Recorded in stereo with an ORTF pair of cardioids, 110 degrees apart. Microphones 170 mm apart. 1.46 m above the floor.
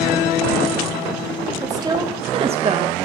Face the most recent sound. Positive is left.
turn(degrees=-45)